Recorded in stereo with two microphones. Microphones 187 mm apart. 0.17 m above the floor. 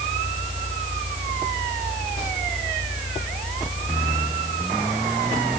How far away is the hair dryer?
I don't hear a hair dryer.